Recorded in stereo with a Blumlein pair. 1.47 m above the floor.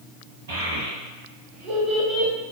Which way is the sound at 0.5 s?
55° right.